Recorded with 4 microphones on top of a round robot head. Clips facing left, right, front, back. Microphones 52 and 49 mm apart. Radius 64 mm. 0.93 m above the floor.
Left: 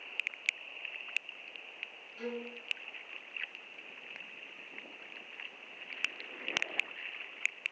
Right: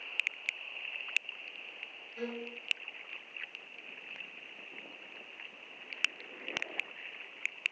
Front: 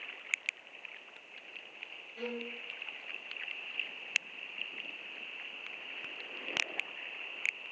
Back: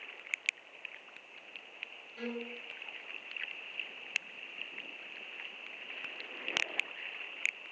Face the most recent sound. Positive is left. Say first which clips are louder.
# even, even
turn(degrees=-85)